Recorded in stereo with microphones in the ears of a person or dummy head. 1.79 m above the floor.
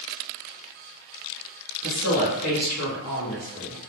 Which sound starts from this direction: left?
A woman speaking, at 1.8 s.